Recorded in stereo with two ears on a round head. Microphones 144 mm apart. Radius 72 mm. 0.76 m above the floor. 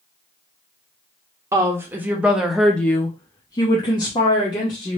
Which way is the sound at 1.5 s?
20° right (ahead or behind).